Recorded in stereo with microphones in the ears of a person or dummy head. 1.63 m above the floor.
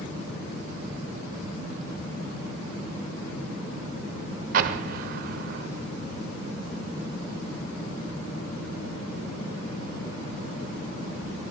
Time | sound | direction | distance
4.5 | an explosion | 50° right (ahead or behind) | 1.0 m